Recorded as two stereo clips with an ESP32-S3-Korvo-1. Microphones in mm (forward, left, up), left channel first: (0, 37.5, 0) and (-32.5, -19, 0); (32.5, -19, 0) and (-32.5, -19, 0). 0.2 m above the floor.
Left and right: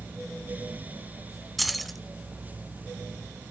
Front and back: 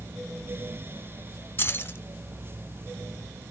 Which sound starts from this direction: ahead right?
Keys jangling, at 1.6 s.